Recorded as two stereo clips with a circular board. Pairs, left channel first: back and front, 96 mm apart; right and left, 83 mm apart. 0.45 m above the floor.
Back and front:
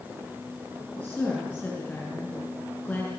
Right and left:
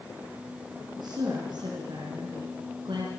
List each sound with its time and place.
1.0 s a woman speaking: 105° left, 5.5 m